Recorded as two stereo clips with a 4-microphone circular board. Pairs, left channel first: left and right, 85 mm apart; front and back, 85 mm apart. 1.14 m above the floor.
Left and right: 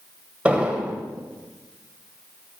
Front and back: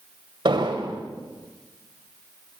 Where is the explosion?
165° right, 1.9 m.